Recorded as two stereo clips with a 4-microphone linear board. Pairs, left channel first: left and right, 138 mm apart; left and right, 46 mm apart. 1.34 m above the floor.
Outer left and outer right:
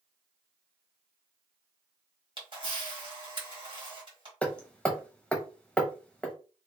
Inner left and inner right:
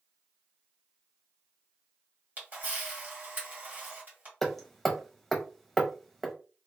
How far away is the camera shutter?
About 1.5 m.